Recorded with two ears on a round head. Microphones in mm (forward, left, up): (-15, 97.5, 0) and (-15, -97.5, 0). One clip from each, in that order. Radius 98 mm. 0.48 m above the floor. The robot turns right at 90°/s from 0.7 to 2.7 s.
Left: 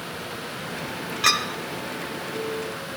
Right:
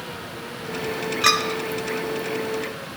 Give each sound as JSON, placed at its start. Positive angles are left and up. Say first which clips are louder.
{"t": 1.2, "sound": "a clink", "louder": "right 2 dB", "side_deg": 0, "distance_m": 1.0}